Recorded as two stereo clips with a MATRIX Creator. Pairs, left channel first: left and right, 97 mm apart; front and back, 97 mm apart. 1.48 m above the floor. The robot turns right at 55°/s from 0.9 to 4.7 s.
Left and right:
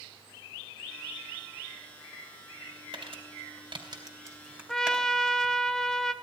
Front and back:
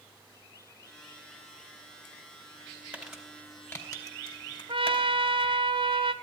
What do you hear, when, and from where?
2.9 s crumpling: 105° right, 2.5 m; by 5.5 s 10° right, 2.5 m
4.7 s a trumpet: 175° left, 0.6 m